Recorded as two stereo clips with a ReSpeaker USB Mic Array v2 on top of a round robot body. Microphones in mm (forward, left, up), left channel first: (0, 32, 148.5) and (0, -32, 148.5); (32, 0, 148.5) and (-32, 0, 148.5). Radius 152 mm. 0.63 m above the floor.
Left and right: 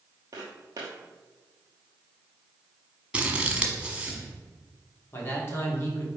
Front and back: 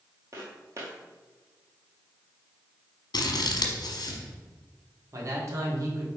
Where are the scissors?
15° right, 1.2 m.